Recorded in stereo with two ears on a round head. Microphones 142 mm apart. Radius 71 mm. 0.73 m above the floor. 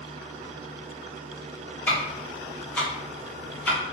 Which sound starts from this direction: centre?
Ticking, at 1.9 s.